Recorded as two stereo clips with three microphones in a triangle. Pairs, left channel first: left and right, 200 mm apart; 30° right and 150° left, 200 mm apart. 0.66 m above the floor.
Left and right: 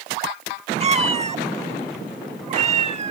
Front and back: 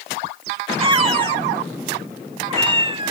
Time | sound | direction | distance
0.8 | a cat meowing | 145° right | ?